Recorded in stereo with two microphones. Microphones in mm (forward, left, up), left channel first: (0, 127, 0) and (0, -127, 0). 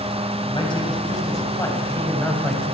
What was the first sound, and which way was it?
A man speaking, 20° left (ahead or behind).